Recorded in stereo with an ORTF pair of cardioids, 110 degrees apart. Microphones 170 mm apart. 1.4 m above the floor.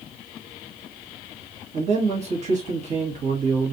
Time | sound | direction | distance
1.7 | a man speaking | 45° right | 1.6 m